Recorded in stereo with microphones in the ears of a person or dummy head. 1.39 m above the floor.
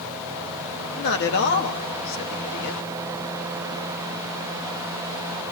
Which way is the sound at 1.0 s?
55° left (ahead or behind).